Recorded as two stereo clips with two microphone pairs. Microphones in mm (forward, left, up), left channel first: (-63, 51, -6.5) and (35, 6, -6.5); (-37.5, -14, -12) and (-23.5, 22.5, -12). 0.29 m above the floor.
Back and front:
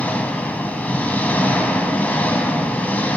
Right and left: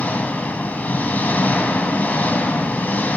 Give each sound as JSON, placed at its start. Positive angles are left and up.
{"t": 0.0, "sound": "an engine running", "azimuth_deg": -135, "distance_m": 1.7}